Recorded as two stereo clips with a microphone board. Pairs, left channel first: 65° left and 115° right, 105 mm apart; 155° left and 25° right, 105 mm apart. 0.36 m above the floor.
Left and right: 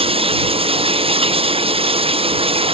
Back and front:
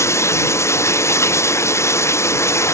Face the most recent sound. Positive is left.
turn(degrees=-140)